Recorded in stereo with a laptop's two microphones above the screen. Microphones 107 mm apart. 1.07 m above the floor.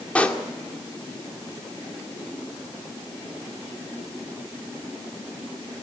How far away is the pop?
About 1.9 m.